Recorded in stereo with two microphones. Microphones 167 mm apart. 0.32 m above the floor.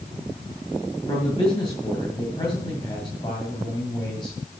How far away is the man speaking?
About 2 m.